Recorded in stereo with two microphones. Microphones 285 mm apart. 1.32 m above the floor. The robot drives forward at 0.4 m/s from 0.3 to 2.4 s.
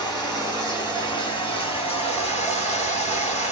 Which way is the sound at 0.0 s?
15° left (ahead or behind).